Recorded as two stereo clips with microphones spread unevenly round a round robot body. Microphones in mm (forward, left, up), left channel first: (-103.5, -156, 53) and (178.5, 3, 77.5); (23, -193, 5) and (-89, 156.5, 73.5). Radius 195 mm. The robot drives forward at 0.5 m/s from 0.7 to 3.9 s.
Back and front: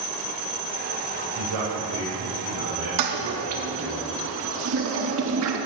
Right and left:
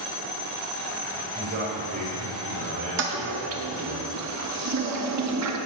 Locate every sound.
1.4 s a man speaking: 50° left, 4.5 m; by 4.0 s 65° left, 4 m
3.0 s a toilet flushing: 45° left, 1.6 m; by 5.6 s 65° left, 1.4 m